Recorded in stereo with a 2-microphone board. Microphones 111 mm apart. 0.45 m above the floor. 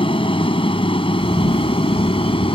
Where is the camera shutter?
70° right (ahead or behind).